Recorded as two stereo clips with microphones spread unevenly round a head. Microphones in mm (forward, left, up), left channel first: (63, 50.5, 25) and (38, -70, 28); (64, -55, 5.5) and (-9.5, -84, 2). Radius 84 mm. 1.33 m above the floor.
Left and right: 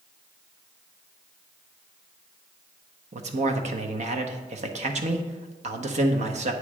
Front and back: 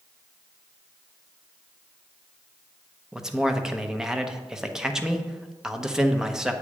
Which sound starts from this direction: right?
A man speaking, at 3.1 s.